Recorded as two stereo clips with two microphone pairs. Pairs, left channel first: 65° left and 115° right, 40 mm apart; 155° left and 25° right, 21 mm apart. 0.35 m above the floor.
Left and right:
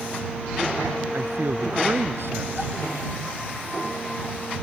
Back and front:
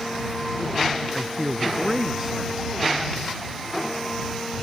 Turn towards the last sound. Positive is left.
turn(degrees=-105)